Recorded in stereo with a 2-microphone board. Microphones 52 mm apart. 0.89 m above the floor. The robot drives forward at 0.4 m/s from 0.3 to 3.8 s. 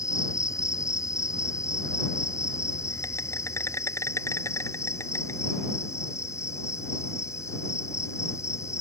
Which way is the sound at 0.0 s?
70° left (ahead or behind).